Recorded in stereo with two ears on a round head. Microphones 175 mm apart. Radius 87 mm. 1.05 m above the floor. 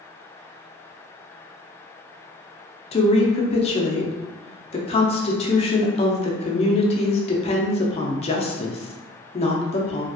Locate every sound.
2.9 s a woman speaking: 30° left (ahead or behind), 0.6 m